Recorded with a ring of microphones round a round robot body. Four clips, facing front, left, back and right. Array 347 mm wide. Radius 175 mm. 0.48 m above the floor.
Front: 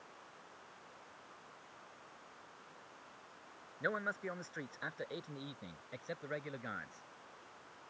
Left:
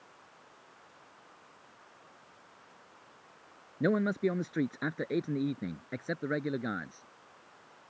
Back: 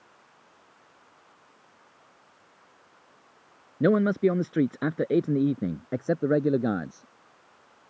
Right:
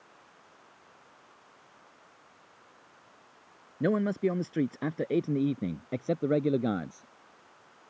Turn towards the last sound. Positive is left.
turn(degrees=-155)